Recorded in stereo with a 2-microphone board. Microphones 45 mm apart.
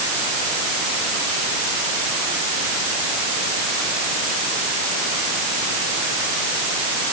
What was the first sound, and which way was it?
Only background noise.